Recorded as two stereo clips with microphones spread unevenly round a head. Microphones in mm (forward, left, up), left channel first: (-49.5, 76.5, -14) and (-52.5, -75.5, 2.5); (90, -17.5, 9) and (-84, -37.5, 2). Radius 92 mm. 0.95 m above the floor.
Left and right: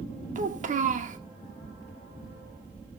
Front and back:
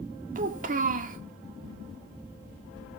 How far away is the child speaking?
About 1.7 m.